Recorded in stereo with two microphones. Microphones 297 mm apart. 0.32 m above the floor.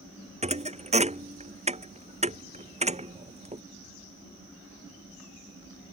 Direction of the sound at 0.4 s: 20° right (ahead or behind).